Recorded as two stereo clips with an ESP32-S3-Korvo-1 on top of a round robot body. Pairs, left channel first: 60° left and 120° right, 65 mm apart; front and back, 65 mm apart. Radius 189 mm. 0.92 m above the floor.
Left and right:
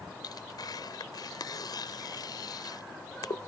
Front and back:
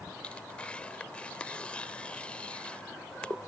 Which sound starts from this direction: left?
Tearing paper, at 0.2 s.